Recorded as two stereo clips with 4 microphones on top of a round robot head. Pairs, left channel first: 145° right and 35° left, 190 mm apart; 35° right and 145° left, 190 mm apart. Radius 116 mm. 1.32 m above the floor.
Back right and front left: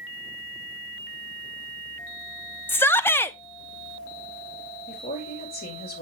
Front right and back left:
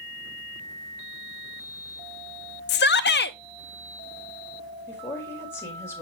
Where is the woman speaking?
110° right, 4 m.